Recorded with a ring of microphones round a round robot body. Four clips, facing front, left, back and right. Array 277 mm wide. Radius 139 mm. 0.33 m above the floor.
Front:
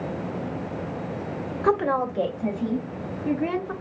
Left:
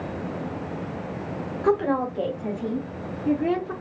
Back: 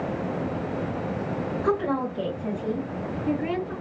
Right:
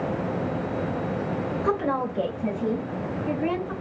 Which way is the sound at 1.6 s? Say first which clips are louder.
Left 5 dB, front 4 dB; 20° left.